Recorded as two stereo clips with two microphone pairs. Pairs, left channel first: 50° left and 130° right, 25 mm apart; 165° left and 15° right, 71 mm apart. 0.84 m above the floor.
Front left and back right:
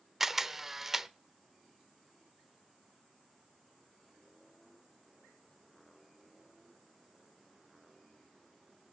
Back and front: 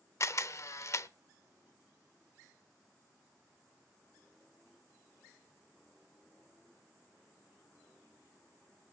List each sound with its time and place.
0.2 s a camera shutter: 155° left, 0.6 m